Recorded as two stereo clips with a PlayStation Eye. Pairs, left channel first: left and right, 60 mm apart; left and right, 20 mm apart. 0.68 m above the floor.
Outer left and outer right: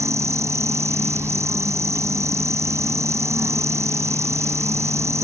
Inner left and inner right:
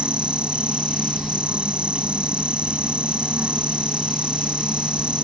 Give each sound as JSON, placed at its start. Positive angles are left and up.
{"t": 0.0, "sound": "an insect", "side_deg": -55}